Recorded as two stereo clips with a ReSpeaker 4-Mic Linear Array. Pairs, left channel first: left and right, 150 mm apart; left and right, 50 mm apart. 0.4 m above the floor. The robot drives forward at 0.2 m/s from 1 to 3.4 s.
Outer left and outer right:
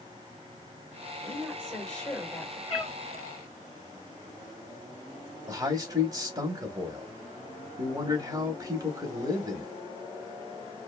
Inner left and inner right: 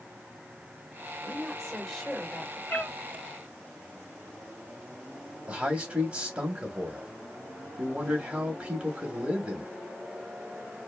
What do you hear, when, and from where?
1.2 s a woman speaking: 5° left (ahead or behind), 1.5 m
2.7 s a cat meowing: 40° left (ahead or behind), 1.0 m
5.5 s a man speaking: 25° right (ahead or behind), 0.8 m